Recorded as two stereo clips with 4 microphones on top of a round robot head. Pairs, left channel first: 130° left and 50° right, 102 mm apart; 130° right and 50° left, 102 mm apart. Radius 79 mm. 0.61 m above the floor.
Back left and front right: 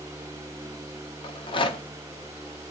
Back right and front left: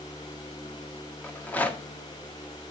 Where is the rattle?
155° left, 0.9 m.